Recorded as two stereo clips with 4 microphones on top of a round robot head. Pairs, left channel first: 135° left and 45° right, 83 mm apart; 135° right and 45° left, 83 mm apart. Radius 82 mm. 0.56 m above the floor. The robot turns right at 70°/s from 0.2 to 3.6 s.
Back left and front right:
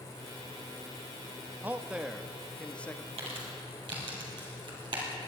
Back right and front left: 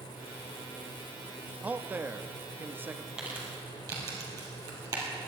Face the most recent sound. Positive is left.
turn(degrees=-5)